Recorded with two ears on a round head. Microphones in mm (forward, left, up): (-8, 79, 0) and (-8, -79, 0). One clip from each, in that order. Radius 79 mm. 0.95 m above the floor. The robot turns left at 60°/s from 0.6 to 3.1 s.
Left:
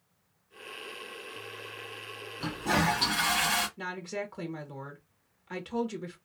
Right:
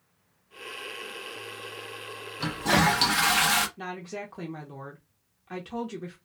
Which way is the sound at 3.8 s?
10° left (ahead or behind).